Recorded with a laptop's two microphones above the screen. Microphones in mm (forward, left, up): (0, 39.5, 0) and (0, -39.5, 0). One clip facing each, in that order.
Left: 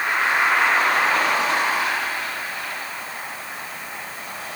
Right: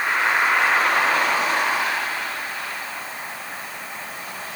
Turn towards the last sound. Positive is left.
No sound to turn to.